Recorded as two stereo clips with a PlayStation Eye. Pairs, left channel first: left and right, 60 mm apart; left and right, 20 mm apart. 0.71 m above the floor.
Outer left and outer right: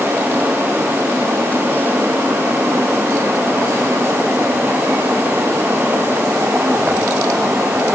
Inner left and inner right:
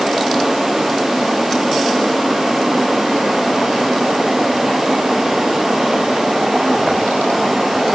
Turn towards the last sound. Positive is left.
No sound to turn to.